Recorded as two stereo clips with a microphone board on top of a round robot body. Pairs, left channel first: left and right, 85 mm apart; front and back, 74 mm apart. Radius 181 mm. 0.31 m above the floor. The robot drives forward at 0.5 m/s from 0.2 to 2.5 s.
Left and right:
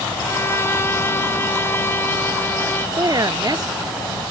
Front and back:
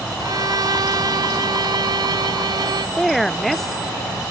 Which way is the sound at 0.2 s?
150° left.